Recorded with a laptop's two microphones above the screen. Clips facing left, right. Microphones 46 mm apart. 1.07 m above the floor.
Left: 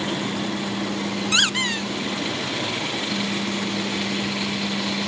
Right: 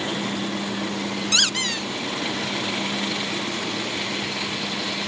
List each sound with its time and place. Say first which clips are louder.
1.3 s a squeak: left 3 dB; 20° left (ahead or behind), 0.5 m